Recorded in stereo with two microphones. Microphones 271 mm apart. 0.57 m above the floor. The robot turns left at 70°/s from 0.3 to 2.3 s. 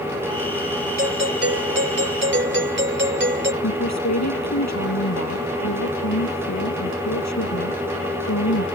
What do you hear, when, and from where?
1.0 s a doorbell: 40° right; by 3.5 s 130° right
3.6 s a woman speaking: 80° left